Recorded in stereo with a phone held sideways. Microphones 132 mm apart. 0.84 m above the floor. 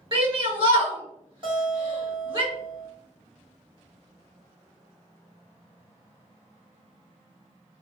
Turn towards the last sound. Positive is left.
turn(degrees=-40)  # may be behind; listen again after turning